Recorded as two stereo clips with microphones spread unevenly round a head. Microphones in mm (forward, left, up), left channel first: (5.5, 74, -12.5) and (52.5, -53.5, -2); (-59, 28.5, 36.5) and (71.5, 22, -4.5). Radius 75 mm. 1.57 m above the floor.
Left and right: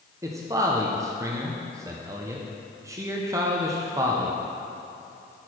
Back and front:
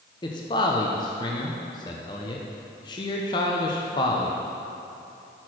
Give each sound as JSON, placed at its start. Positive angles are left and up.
{"t": 0.2, "sound": "a man speaking", "azimuth_deg": -135, "distance_m": 0.6}